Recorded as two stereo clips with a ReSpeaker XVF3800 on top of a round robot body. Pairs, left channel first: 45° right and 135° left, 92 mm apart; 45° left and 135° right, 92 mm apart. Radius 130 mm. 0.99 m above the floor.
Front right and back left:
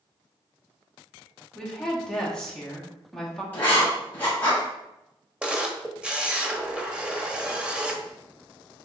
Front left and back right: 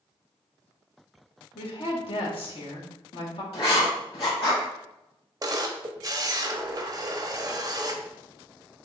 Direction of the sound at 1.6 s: 35° left.